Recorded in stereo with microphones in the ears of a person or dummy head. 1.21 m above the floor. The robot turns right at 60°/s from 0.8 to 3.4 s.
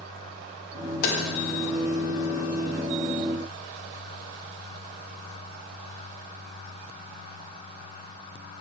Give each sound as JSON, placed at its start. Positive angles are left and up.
{"t": 1.0, "sound": "tapping", "side_deg": 55, "distance_m": 0.9}